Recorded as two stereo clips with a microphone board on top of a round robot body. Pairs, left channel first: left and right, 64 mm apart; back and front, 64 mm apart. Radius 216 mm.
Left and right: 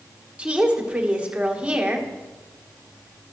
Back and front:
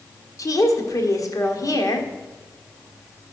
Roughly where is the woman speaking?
Behind.